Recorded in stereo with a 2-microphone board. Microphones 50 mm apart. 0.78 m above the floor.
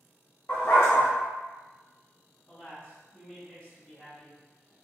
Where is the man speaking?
25° left (ahead or behind), 1.6 m.